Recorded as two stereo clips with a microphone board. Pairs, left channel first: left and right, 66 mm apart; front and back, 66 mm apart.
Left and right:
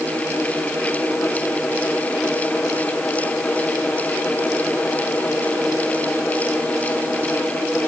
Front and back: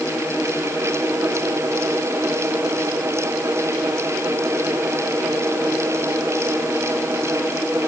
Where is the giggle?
No giggle in this recording.